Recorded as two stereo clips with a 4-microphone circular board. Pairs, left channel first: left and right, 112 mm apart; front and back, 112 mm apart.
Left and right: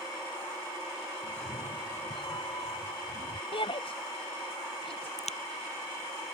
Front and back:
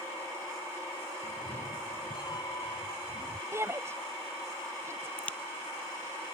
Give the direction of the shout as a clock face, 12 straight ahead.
8 o'clock.